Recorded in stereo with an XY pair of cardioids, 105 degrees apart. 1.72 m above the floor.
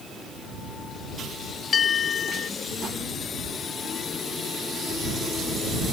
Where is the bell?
55° left.